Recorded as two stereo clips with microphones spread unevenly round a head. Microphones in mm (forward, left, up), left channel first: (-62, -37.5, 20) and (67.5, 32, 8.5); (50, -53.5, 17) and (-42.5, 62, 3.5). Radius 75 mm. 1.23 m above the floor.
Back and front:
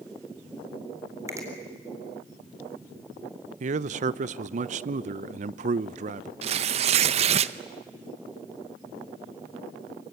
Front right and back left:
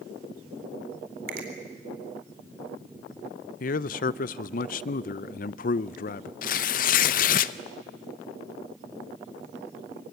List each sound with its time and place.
1.3 s a finger snap: 100° left, 4 m
3.6 s a man speaking: 15° right, 0.6 m
6.4 s tearing paper: 20° right, 0.6 m